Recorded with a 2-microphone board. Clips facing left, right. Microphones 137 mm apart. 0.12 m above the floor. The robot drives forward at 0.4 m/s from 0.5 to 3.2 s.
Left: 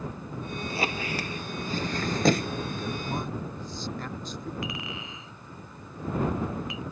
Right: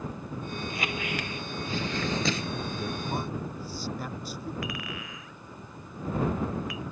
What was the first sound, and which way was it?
A squeak, 35° left (ahead or behind).